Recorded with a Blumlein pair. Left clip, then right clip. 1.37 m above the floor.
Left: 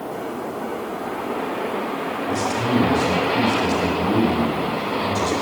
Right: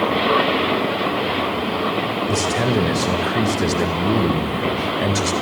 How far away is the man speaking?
About 5 m.